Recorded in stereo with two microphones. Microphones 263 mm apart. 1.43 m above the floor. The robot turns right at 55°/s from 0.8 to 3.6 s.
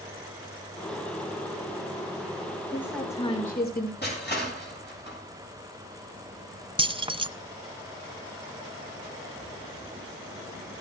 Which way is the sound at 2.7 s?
10° right.